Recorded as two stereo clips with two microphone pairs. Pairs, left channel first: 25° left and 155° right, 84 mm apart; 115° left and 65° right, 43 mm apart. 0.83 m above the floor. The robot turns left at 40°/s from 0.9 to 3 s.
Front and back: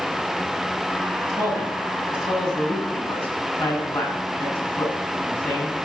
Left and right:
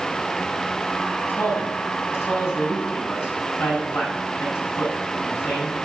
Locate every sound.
1.3 s a man speaking: 155° left, 8 m; by 5.9 s 85° left, 8 m